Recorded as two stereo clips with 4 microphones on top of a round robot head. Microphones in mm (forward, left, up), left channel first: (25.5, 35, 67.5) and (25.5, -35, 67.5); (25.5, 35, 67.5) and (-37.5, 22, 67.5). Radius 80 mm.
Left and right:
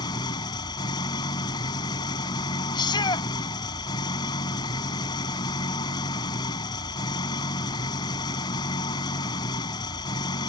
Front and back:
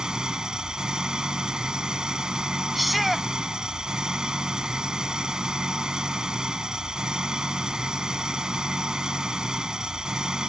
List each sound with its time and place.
0.0 s an engine running: 110° left
2.8 s a shout: 100° left